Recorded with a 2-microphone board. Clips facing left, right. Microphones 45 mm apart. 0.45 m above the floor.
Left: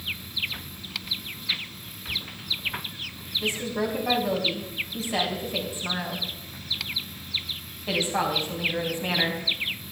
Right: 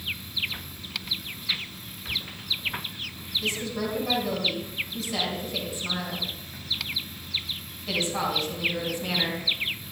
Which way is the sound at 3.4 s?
30° left (ahead or behind).